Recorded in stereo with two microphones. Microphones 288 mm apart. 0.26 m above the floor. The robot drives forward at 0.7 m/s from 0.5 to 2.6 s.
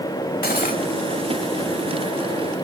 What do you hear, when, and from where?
0.4 s cutlery clinking: 30° left (ahead or behind), 0.8 m